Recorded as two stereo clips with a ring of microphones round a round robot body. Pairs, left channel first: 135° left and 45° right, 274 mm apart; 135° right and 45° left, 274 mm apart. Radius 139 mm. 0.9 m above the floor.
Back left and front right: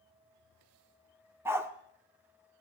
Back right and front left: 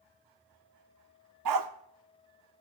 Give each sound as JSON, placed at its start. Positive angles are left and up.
{"t": 1.4, "sound": "a dog barking", "azimuth_deg": 35, "distance_m": 0.9}